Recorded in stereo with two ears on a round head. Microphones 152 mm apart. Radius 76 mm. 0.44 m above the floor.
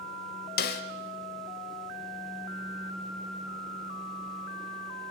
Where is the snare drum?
60° left (ahead or behind), 1.5 m.